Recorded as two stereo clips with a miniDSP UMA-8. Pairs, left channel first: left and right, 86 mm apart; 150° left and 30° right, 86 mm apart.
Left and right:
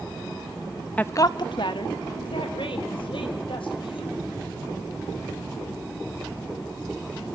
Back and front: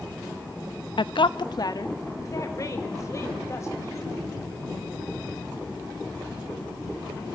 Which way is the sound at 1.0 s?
165° left.